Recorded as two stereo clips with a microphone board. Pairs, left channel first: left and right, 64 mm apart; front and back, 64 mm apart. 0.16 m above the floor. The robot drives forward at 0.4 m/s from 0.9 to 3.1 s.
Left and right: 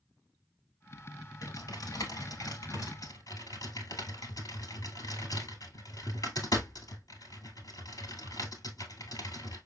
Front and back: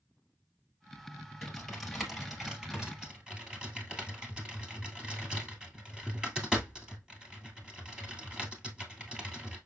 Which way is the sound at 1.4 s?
85° left.